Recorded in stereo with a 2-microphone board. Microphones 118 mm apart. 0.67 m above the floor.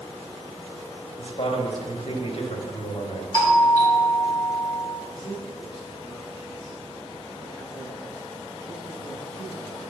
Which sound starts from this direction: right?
A doorbell, at 3.3 s.